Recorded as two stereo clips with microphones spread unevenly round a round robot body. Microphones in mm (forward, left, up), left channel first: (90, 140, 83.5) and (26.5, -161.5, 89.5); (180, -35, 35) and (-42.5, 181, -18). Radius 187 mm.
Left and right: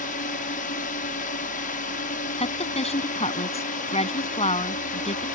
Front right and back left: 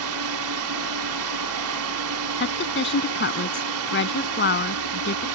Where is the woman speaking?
10° left.